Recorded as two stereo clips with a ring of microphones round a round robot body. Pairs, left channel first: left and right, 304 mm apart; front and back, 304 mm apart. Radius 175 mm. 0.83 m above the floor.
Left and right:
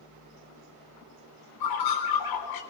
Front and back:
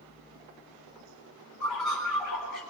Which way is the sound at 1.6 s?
90° left.